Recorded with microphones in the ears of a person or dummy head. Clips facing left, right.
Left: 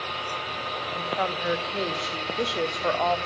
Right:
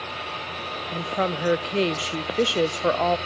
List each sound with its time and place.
0.9 s a woman speaking: 40° right (ahead or behind), 0.7 m